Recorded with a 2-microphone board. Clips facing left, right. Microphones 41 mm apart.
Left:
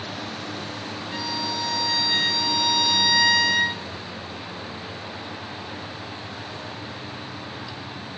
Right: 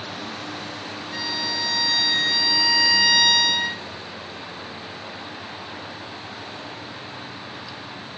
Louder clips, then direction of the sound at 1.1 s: Right 1 dB; 55° left (ahead or behind).